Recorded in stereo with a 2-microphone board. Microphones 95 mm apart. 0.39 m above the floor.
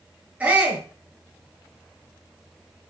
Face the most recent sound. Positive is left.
turn(degrees=-15)  # may be behind; listen again after turning